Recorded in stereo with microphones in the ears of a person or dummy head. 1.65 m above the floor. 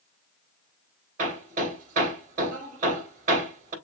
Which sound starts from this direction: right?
Hammering, at 1.2 s.